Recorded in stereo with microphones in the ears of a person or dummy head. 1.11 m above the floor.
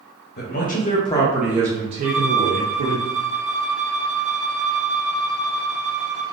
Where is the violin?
20° left (ahead or behind), 1.2 m.